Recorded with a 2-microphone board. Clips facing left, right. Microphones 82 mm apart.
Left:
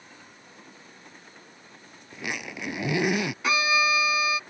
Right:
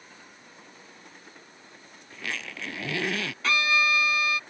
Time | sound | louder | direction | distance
2.1 | a zipper | left 2 dB | 15° left (ahead or behind) | ?
3.4 | a violin | even | 15° left (ahead or behind) | ?